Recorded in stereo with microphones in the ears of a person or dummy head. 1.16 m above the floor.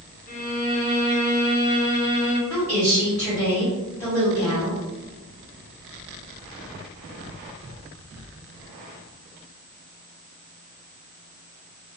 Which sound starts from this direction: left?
A violin, at 0.3 s.